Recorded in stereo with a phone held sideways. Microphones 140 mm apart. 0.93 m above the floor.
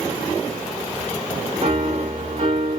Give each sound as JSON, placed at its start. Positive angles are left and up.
{"t": 1.6, "sound": "a piano", "side_deg": -55, "distance_m": 2.0}